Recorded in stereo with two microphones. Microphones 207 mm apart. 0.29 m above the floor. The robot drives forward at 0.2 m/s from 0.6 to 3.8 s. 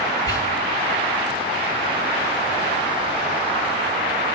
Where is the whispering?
20° left (ahead or behind), 1.5 m.